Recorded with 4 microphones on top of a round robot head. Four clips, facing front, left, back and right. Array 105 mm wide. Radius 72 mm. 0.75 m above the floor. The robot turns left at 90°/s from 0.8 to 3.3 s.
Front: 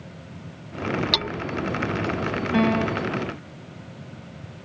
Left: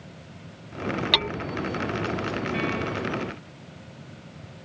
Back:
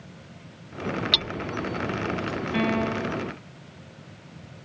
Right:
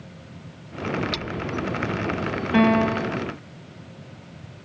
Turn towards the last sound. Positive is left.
turn(degrees=-135)